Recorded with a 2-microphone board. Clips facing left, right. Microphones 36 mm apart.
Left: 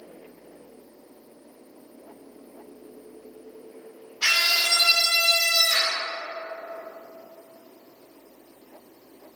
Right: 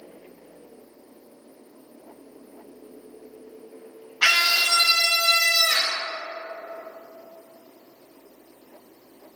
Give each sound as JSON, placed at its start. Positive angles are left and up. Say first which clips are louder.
{"t": 4.2, "sound": "a scream", "louder": "right 3 dB", "side_deg": -70, "distance_m": 1.0}